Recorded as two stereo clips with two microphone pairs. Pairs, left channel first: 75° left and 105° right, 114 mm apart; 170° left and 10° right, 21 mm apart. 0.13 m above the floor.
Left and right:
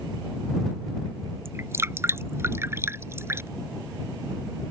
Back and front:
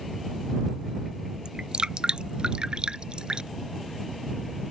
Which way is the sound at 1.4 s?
45° right.